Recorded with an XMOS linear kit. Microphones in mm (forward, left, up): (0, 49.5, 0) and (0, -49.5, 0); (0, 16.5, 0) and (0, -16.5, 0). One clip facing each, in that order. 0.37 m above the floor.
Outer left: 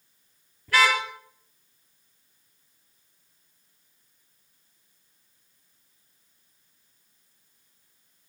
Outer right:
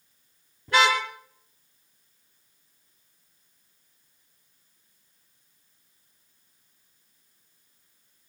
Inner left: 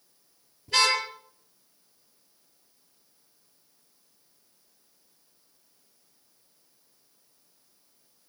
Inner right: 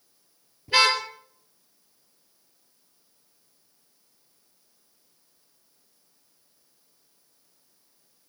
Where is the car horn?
20° right (ahead or behind), 4.5 m.